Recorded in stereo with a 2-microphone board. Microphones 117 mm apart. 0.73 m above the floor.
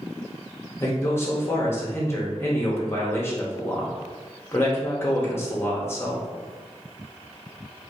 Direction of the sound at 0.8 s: 20° left (ahead or behind).